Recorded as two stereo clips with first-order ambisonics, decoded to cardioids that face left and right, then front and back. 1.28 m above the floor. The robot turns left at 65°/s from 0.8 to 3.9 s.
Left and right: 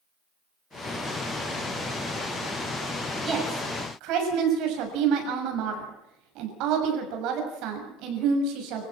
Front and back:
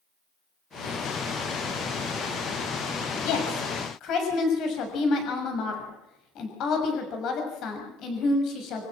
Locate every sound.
3.2 s a woman speaking: 10° right, 6.5 m; by 8.8 s 50° right, 6.5 m